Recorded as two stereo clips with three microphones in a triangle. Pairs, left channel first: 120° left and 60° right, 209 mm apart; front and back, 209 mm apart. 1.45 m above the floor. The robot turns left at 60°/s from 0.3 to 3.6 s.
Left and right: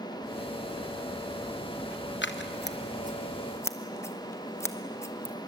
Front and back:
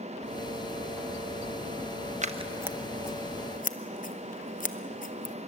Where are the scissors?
130° left, 0.8 m; by 5.3 s 45° left, 0.8 m.